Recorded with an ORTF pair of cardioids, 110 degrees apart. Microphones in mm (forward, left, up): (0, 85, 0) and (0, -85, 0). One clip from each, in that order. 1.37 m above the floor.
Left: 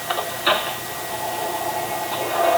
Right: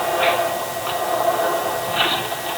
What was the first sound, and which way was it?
Only background noise.